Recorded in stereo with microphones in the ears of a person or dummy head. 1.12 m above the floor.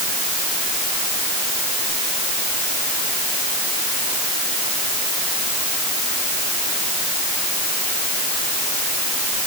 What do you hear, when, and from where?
Only background noise.